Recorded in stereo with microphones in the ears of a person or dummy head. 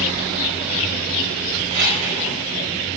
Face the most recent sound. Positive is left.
turn(degrees=-45)  # may be behind; listen again after turning